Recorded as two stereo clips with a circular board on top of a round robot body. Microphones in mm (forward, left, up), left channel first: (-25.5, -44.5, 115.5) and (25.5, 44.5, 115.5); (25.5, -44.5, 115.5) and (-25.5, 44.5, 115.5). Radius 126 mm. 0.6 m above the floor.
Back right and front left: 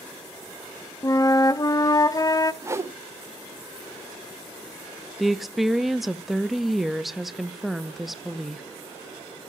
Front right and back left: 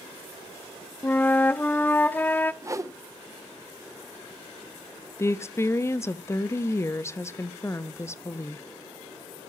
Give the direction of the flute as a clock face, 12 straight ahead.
4 o'clock.